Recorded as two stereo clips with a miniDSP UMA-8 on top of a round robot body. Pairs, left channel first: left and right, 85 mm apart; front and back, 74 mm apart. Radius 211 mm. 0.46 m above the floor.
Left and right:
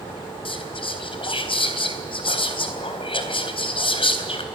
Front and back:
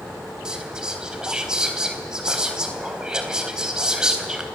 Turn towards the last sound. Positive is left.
turn(degrees=100)